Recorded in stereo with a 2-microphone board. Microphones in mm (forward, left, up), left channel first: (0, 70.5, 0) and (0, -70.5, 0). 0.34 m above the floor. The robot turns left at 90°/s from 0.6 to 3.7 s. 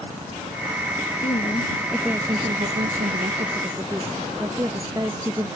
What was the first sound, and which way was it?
A woman speaking, 65° left.